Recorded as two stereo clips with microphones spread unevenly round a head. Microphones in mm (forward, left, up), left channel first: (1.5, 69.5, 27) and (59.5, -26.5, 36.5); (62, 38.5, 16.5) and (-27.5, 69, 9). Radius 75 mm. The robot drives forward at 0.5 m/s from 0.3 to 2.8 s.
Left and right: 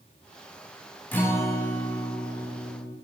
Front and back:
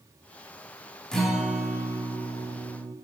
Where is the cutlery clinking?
No cutlery clinking in this recording.